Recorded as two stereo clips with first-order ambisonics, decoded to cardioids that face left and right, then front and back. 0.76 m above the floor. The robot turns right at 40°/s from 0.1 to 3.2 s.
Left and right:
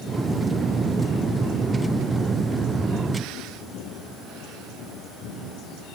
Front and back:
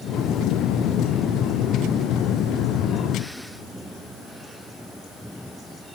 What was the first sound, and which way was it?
Only background noise.